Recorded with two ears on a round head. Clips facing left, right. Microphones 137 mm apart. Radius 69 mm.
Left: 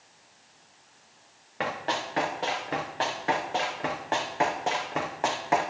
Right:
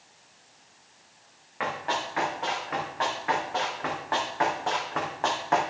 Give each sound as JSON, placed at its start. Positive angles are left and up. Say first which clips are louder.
{"t": 1.6, "sound": "running footsteps", "louder": "even", "side_deg": 40, "distance_m": 4.0}